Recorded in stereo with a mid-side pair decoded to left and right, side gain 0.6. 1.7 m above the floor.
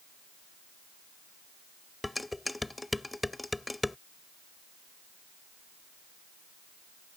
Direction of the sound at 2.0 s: 10° left.